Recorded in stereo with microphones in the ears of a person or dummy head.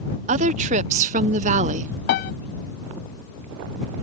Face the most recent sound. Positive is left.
turn(degrees=50)  # may be behind; listen again after turning